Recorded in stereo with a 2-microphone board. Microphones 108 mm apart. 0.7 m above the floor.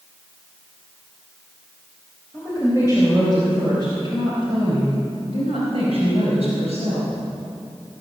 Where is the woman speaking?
20° right (ahead or behind), 4 m; by 7.1 s 80° right, 5 m.